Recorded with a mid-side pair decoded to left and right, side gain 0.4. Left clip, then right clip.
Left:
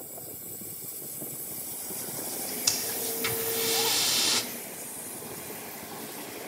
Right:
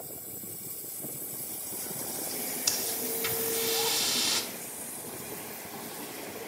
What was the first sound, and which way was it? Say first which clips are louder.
Breathing: left 2 dB; 15° left.